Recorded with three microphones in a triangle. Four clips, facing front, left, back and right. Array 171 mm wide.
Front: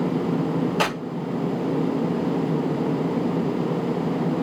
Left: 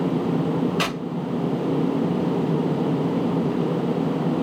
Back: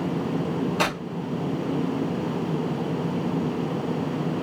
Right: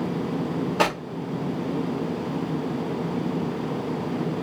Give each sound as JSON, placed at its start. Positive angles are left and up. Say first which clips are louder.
{"t": 0.8, "sound": "tearing paper", "louder": "right 3 dB, front 1 dB", "azimuth_deg": -80, "distance_m": 1.5}